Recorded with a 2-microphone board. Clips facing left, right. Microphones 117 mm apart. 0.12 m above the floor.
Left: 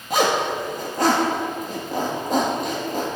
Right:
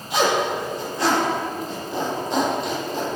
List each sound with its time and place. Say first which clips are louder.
0.1 s a zipper: even; 50° left (ahead or behind), 3 m